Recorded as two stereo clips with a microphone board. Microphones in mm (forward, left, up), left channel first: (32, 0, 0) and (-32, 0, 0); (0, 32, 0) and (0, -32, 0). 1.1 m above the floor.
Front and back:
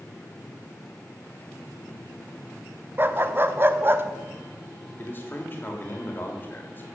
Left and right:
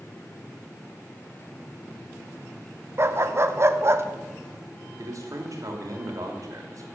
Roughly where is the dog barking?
Behind right.